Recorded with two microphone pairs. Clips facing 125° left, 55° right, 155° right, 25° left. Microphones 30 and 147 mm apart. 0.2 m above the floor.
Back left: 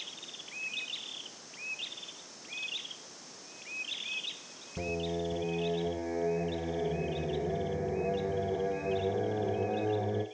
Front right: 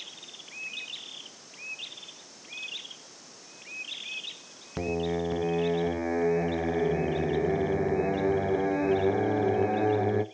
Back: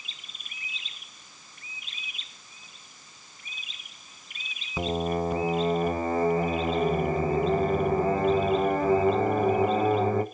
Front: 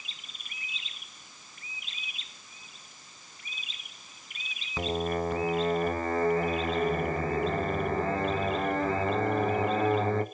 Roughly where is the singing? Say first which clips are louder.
Front right 5 dB, back 2 dB; right.